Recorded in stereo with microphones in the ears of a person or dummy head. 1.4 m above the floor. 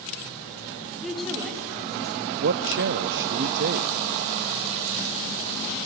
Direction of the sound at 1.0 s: Centre (ahead or behind).